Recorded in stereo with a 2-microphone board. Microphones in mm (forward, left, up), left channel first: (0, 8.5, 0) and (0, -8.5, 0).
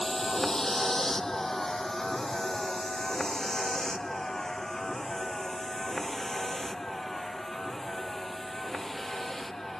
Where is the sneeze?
No sneeze in this recording.